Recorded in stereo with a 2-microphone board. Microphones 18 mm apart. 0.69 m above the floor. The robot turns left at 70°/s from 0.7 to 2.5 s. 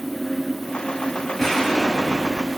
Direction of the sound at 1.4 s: 140° left.